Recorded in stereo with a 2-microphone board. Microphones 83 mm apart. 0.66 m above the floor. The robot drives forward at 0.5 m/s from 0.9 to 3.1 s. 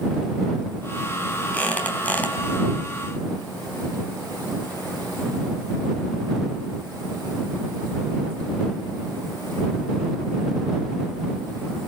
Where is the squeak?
15° left (ahead or behind), 4 m; by 2.4 s 20° left (ahead or behind), 3.5 m.